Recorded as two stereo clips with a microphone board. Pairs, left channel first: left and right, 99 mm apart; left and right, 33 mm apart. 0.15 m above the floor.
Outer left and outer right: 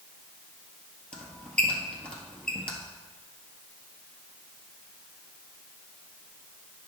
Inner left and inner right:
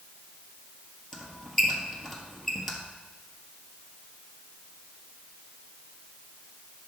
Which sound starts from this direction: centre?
A squeak, at 1.1 s.